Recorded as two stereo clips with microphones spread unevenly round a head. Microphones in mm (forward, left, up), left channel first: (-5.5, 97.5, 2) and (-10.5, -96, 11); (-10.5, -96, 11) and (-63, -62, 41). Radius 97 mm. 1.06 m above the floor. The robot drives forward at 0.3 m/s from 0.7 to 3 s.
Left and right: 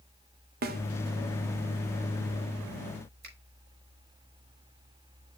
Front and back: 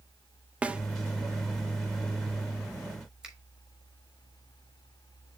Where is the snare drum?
135° right, 0.9 m.